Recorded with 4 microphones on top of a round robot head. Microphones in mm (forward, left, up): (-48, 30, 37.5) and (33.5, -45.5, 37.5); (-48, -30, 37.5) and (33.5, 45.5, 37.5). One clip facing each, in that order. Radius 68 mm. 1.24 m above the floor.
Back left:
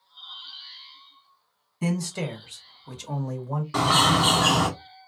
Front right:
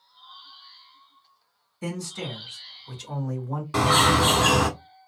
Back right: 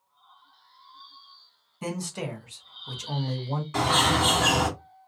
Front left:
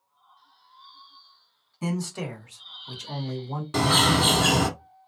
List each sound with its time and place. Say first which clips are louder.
1.8 s a man speaking: back left 5 dB, front left 2 dB; 135° left, 1.3 m; by 3.6 s 155° right, 1.4 m
3.7 s a bird: front right 1 dB, front left 2 dB; 25° left, 1.1 m